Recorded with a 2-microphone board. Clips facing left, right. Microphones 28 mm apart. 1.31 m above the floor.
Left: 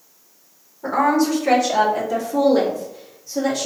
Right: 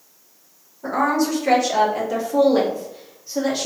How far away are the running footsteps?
No running footsteps in this recording.